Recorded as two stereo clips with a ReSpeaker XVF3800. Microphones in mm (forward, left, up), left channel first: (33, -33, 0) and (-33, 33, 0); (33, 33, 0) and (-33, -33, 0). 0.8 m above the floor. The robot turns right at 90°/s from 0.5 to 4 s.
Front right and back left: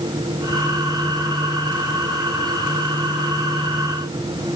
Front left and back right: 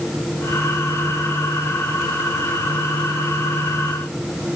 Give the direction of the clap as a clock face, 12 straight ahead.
I don't hear a clap.